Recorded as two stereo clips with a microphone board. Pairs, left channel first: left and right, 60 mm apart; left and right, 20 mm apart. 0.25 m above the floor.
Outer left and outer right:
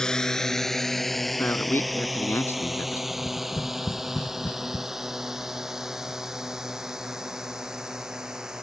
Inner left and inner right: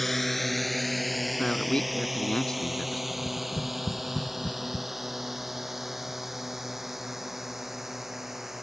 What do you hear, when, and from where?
0.0 s a drone: 10° left (ahead or behind); by 8.6 s 10° right (ahead or behind)
1.4 s a man speaking: 40° left (ahead or behind)
3.1 s tapping: 40° left (ahead or behind)